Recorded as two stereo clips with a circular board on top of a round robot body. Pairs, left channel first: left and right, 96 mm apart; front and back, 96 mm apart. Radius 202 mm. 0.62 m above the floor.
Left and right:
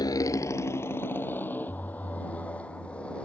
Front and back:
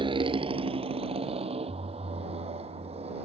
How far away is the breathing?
I don't hear breathing.